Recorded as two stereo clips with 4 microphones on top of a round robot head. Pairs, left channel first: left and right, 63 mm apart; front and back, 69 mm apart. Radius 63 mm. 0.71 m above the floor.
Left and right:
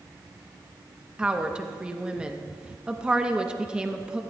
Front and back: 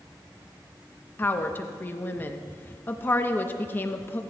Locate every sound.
1.2 s a woman speaking: 30° right, 0.9 m